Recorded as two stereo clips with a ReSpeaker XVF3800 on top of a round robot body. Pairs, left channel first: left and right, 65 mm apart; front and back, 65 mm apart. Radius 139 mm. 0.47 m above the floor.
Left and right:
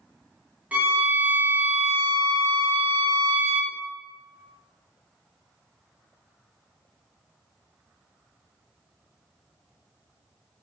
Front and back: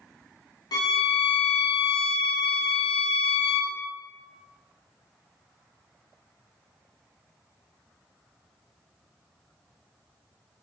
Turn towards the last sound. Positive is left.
turn(degrees=-20)